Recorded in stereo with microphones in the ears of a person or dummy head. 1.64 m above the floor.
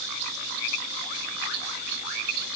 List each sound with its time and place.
Only background noise.